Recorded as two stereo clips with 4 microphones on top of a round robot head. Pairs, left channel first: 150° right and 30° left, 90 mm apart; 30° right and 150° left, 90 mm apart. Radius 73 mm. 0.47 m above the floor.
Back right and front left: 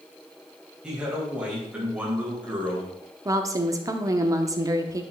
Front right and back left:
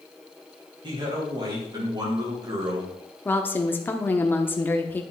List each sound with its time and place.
0.8 s a man speaking: 115° left, 3.5 m; by 3.0 s 100° left, 2.5 m
3.2 s a woman speaking: 25° left, 0.9 m